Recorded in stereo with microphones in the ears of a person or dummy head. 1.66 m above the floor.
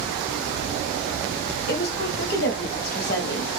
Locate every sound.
1.7 s a woman speaking: 50° left (ahead or behind), 0.9 m